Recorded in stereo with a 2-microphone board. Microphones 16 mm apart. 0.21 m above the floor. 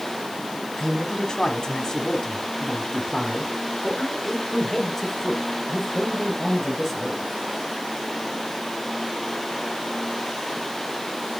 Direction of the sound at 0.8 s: 40° left (ahead or behind).